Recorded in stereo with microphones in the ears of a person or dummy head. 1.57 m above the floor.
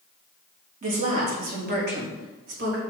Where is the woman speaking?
40° right (ahead or behind), 2 m; by 2.8 s 60° right (ahead or behind), 2.5 m.